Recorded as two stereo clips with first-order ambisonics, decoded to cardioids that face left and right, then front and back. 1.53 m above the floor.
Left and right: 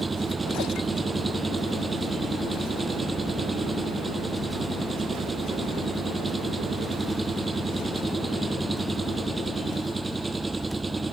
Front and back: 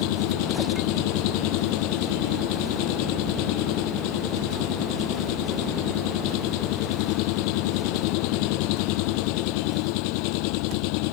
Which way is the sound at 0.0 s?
10° right.